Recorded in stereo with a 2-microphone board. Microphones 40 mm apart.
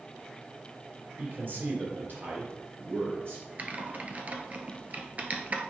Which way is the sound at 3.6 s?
40° right (ahead or behind).